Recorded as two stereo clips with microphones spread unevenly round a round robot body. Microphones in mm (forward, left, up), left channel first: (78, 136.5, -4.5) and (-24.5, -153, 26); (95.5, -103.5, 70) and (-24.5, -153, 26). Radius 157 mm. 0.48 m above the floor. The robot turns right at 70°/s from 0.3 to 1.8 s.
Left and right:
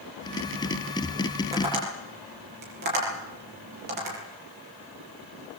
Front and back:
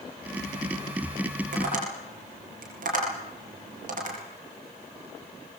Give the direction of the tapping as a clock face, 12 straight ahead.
6 o'clock.